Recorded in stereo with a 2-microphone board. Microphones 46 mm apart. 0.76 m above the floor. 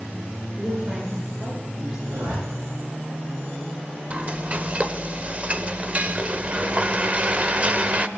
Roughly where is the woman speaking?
Centre.